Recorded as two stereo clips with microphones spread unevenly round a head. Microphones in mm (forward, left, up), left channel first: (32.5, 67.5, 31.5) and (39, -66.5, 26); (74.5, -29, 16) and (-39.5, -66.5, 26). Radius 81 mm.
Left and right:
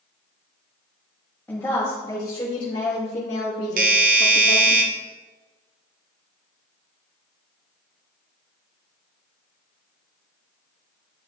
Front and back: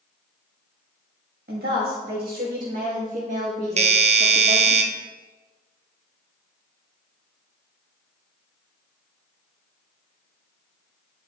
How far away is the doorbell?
About 0.9 m.